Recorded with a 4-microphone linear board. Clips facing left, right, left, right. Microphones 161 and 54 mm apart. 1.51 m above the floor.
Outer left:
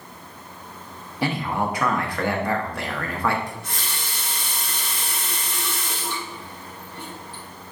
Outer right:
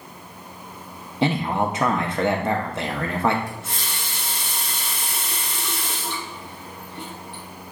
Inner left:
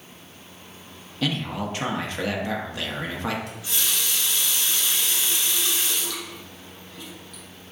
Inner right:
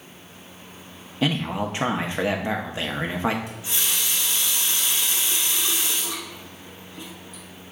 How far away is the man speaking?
About 0.6 m.